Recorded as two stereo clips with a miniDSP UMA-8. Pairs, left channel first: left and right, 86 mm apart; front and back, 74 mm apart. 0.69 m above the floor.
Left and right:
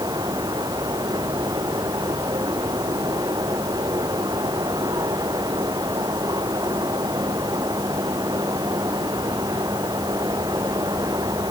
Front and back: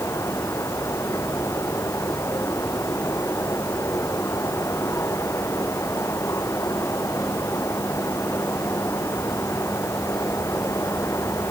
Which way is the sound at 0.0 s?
50° right.